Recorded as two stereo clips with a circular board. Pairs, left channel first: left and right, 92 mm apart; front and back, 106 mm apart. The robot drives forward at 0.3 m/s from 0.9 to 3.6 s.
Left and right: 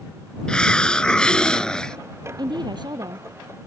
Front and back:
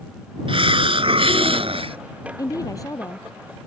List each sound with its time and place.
0.5 s a hiss: 170° left
2.4 s a woman speaking: 55° right